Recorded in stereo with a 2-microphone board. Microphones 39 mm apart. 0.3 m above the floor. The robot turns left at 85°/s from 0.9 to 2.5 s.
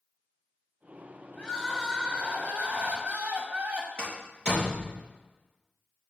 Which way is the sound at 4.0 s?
35° right (ahead or behind).